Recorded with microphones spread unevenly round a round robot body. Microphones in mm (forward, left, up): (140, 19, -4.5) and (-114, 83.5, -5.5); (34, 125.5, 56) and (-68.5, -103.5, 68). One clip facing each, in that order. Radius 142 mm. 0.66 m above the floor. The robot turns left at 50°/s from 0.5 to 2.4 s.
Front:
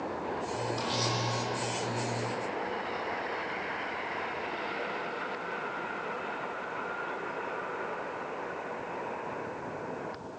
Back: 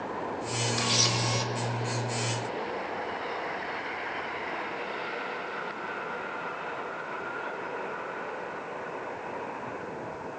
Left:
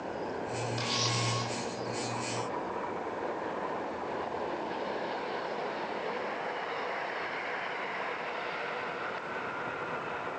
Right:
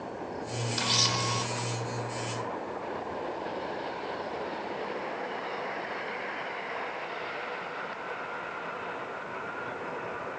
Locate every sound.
0.8 s a camera shutter: 130° right, 1.9 m; by 1.5 s 165° right, 1.9 m